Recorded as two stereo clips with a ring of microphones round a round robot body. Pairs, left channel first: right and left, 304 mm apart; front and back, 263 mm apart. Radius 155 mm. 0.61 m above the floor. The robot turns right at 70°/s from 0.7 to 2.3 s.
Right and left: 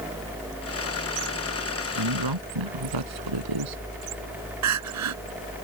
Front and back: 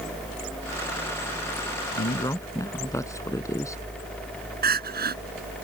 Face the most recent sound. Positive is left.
turn(degrees=125)